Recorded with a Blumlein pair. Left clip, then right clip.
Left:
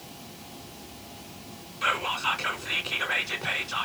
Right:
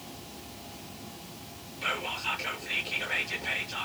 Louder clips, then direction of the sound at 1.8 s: Left 5 dB; 35° left.